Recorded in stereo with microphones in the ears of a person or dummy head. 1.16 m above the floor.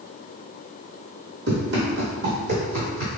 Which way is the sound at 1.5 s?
55° right (ahead or behind).